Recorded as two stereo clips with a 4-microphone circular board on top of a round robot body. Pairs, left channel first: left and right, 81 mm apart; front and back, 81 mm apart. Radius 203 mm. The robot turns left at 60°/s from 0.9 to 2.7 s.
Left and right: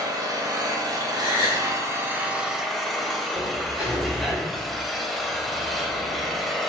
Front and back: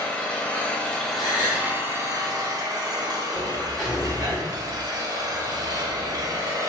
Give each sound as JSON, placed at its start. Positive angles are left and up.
{"t": 0.0, "sound": "an engine running", "azimuth_deg": -75, "distance_m": 0.8}
{"t": 1.1, "sound": "a gasp", "azimuth_deg": -5, "distance_m": 1.3}
{"t": 3.3, "sound": "a sliding door", "azimuth_deg": -85, "distance_m": 1.0}